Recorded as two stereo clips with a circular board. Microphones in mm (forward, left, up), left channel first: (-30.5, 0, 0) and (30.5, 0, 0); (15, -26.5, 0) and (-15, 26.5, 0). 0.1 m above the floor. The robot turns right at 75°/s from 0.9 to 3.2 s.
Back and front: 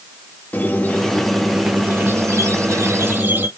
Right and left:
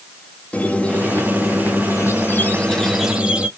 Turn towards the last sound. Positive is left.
turn(degrees=50)